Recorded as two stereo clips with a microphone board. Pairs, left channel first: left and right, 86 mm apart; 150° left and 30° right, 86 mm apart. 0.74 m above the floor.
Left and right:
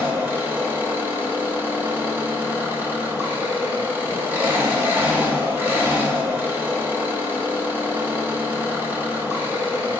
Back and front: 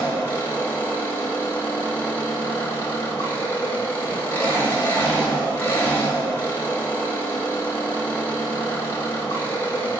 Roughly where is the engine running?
Behind right.